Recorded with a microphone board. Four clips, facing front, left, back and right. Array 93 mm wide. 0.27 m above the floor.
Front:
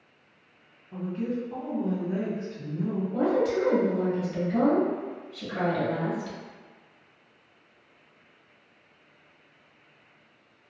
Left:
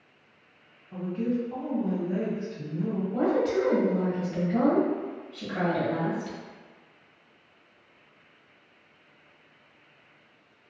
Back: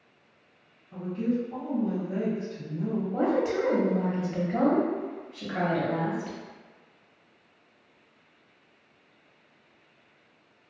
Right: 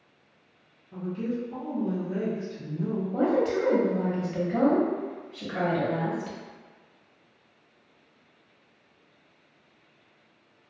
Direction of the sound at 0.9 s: 65° left.